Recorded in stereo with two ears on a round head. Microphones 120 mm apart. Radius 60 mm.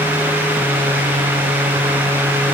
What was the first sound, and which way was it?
Only background noise.